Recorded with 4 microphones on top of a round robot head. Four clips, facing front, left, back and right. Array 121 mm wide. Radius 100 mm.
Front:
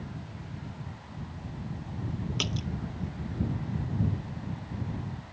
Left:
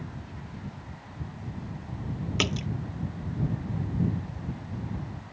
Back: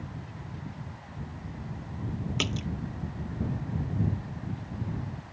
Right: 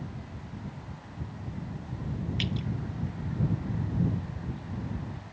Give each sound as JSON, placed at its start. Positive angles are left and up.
{"t": 2.4, "sound": "a splash", "azimuth_deg": 95}